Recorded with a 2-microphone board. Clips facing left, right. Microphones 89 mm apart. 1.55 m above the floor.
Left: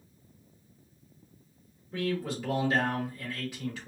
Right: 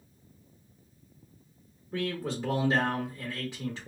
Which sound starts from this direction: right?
A man speaking, at 1.9 s.